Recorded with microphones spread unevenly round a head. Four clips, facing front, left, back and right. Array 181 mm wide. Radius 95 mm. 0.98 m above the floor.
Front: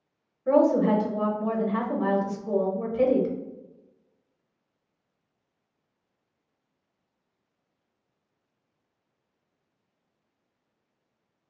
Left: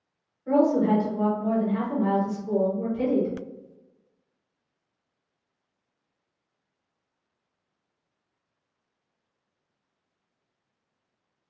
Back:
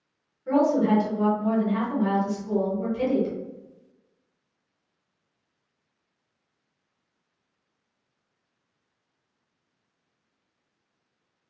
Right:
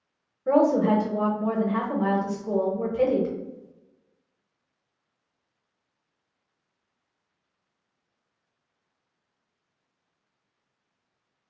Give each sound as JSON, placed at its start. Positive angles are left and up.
{"t": 0.5, "sound": "a woman speaking", "azimuth_deg": -75, "distance_m": 0.9}